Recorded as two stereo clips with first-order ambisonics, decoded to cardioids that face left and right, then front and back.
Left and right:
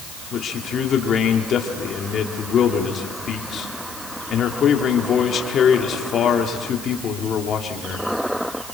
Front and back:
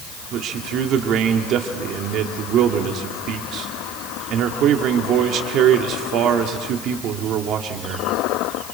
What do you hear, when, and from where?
0.3 s a man speaking: 145° left, 1.9 m